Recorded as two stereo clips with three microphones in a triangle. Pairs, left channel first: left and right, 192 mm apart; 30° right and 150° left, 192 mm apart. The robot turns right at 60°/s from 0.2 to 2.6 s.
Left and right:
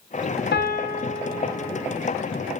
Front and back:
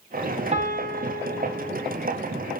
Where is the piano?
100° left, 0.6 m; by 1.9 s 175° right, 0.6 m.